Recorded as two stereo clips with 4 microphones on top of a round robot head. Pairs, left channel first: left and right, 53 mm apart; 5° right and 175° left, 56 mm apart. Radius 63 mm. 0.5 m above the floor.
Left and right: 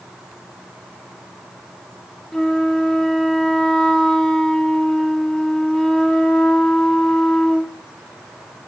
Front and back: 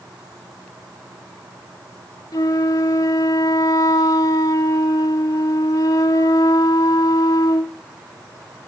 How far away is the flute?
About 0.6 m.